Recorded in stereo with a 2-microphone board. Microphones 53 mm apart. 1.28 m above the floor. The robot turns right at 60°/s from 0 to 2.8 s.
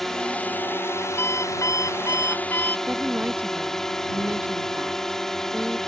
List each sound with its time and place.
0.0 s a drone: 5° left; by 5.9 s 170° left
1.2 s an alarm clock: 45° left; by 2.8 s 140° left
2.9 s a woman speaking: 35° right (ahead or behind)